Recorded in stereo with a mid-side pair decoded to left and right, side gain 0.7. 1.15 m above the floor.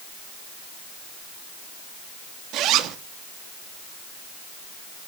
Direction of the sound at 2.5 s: 55° right.